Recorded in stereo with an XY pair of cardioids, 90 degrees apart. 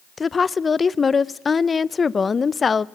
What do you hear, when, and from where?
0.2 s a woman speaking: 40° left, 0.6 m